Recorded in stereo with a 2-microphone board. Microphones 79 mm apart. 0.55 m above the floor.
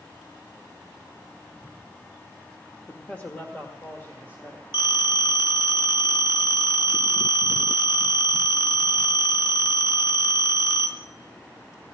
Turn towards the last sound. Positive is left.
turn(degrees=75)  # may be behind; listen again after turning